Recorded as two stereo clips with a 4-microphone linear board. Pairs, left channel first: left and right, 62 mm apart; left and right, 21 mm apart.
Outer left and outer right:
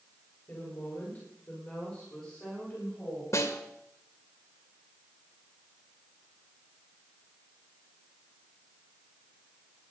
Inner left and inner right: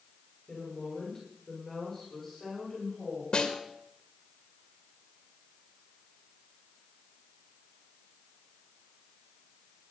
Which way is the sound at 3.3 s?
45° left (ahead or behind).